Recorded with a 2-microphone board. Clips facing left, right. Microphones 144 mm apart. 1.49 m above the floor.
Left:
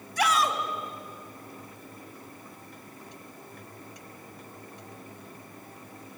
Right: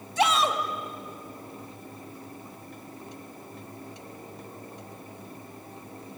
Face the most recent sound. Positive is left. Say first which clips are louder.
# right 2 dB
turn(degrees=-25)  # may be behind; listen again after turning